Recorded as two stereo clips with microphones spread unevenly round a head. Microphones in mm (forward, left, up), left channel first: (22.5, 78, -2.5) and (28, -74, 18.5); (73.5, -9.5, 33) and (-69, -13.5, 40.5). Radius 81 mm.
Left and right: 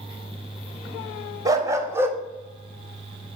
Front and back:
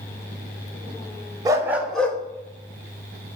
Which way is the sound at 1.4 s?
130° right.